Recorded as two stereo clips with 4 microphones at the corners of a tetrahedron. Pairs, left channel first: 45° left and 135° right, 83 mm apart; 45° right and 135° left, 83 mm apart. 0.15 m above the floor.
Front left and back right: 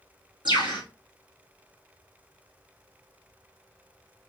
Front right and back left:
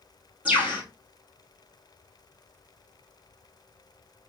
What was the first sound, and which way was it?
A bird, 155° right.